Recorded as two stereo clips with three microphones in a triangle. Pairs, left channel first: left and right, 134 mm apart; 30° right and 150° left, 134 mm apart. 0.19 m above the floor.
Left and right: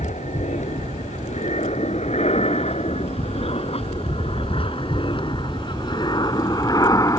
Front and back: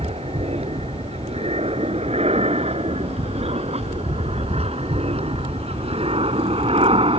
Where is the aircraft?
115° left; by 7.2 s 145° left.